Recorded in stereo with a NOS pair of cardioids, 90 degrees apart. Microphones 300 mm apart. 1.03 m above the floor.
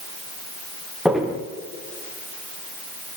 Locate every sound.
1.1 s footsteps: straight ahead, 6 m